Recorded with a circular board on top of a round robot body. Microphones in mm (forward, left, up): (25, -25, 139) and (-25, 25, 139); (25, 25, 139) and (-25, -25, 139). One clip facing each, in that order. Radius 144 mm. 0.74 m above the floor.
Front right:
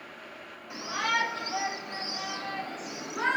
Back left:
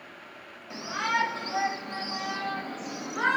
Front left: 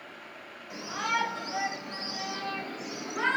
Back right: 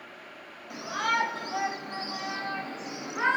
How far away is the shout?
About 2.5 m.